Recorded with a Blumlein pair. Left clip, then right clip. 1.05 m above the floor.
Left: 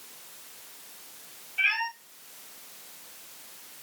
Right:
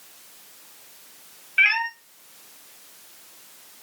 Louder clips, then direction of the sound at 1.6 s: Right 7 dB; 45° right.